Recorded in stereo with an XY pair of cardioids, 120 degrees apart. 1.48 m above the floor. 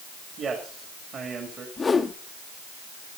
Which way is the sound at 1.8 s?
25° left.